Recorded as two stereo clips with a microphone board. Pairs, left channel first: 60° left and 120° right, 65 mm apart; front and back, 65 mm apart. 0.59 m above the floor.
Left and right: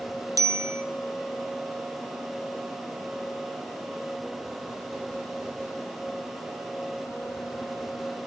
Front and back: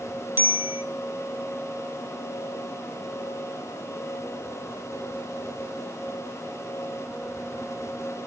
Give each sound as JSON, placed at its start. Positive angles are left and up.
{"t": 0.4, "sound": "a bicycle bell", "azimuth_deg": -130, "distance_m": 2.0}